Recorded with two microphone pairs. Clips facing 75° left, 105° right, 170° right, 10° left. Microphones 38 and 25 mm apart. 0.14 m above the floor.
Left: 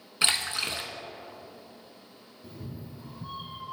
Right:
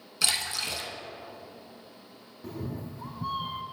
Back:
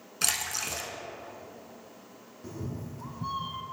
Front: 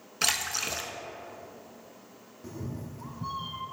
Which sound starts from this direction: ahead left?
A splash, at 0.2 s.